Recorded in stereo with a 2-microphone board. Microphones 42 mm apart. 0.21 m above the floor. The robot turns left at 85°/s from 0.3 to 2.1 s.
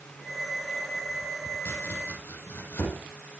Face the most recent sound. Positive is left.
turn(degrees=60)  # may be behind; listen again after turning